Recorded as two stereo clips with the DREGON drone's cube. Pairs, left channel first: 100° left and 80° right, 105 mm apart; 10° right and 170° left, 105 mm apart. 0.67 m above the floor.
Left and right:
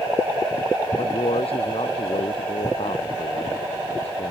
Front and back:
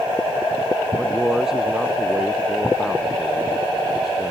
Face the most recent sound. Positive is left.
turn(degrees=85)